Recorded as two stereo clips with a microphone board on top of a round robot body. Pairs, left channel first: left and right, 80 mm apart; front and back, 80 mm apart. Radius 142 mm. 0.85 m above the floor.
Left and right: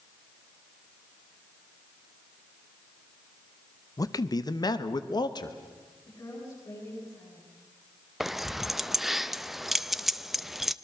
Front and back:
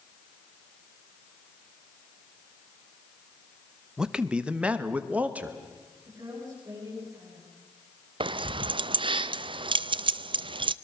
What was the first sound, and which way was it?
A man speaking, 100° left.